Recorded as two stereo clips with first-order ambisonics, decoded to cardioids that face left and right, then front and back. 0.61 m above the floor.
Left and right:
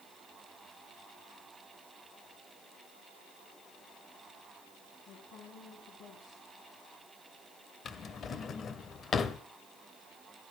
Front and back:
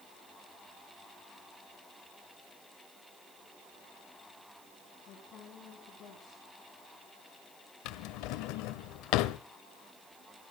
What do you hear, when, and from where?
5.1 s a woman speaking: 50° left, 4.5 m
7.8 s a drawer: 25° left, 0.8 m